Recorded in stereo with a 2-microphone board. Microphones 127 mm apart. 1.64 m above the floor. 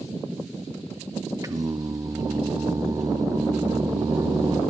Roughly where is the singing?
Right.